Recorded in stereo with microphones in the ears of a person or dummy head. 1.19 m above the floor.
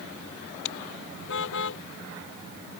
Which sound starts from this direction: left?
A car horn, at 0.7 s.